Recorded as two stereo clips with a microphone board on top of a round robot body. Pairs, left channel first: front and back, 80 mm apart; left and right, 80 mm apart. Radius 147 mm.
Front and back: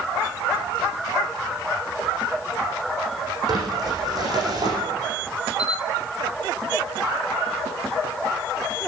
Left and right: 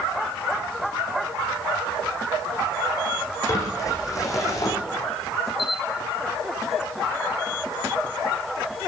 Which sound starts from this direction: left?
A camera shutter, at 5.6 s.